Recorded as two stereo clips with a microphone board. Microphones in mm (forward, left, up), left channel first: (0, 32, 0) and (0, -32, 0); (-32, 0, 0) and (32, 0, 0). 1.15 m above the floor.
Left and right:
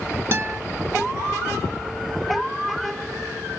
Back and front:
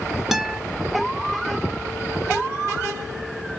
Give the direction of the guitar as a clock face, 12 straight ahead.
3 o'clock.